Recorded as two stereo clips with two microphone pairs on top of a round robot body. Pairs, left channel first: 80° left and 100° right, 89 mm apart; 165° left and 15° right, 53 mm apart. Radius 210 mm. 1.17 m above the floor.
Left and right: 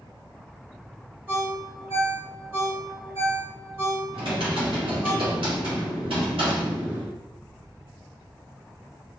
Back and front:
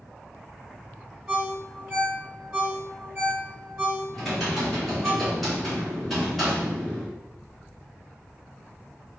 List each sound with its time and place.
1.3 s a ringtone: 90° right, 1.7 m
4.1 s typing on a keyboard: 110° right, 1.5 m